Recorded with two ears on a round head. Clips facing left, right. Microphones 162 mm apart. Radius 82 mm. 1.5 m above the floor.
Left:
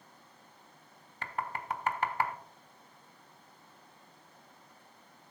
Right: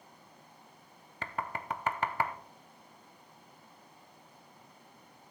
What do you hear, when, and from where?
1.2 s knocking: 65° right (ahead or behind), 0.6 m